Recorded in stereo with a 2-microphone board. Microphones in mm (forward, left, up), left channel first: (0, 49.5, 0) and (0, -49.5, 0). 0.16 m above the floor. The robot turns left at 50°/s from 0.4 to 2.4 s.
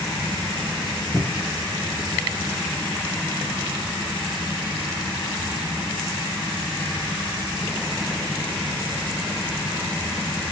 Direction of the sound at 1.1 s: 5° right (ahead or behind).